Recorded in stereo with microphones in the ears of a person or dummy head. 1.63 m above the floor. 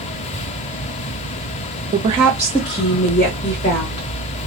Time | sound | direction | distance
1.9 | a woman speaking | 30° right (ahead or behind) | 0.6 m